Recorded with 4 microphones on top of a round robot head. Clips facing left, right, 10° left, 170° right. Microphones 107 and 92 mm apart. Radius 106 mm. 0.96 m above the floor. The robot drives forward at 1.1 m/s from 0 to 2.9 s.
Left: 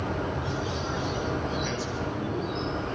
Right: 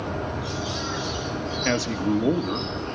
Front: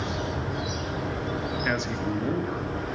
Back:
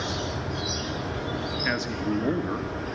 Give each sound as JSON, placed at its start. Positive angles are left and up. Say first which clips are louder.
{"t": 1.6, "sound": "a man speaking", "louder": "right 7 dB, back 2 dB", "azimuth_deg": -75, "distance_m": 2.0}